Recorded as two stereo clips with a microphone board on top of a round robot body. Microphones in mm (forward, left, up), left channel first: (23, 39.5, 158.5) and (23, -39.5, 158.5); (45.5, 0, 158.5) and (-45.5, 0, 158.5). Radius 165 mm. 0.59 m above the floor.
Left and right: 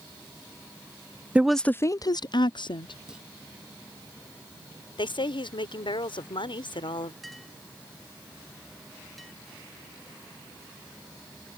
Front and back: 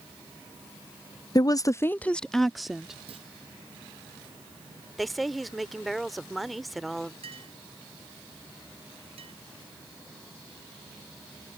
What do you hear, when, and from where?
1.4 s a woman speaking: 20° right; by 3.0 s 95° left
3.1 s a clunk: 170° right
5.0 s a woman speaking: 90° left
7.2 s a clink: straight behind